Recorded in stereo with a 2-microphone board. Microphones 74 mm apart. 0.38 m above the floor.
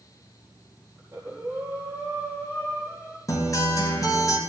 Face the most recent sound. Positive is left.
turn(degrees=45)  # may be behind; listen again after turning